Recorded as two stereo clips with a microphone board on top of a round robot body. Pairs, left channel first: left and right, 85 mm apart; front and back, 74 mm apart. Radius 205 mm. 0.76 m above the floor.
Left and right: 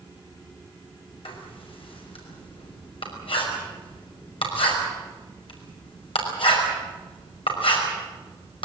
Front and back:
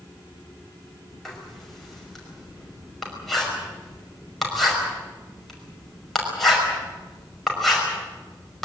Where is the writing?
90° left, 5.5 m.